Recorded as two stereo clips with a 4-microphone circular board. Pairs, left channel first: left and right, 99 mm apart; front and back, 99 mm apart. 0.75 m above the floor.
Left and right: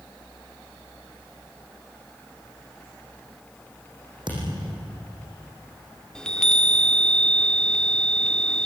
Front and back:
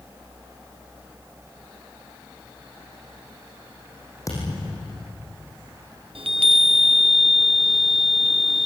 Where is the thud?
55° right, 6.5 m.